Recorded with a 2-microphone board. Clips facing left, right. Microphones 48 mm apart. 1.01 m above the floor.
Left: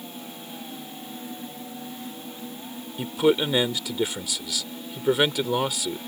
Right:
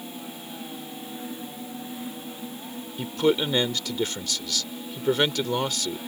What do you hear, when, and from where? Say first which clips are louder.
3.0 s a man speaking: left 2 dB; 10° left (ahead or behind)